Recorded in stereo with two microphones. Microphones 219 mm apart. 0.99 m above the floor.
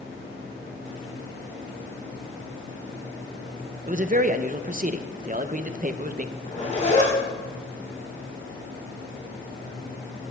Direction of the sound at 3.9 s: 40° right (ahead or behind).